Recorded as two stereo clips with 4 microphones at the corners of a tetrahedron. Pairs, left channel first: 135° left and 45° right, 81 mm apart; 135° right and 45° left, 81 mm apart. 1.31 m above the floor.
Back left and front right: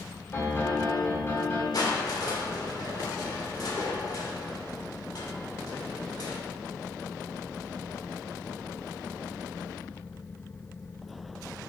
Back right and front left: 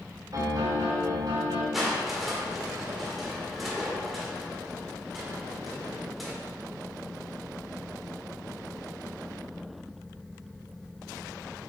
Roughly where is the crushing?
Behind left.